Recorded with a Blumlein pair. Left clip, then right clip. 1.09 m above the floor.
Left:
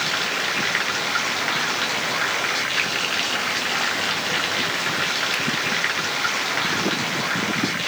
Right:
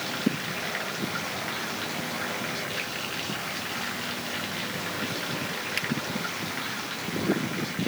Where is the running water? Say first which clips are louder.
Left 8 dB; 60° left.